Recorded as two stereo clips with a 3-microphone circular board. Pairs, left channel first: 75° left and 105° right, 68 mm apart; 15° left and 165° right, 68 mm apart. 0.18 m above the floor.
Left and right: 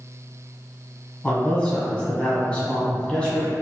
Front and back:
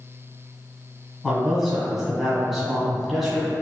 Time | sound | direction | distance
1.2 | a man speaking | 110° left | 1.2 m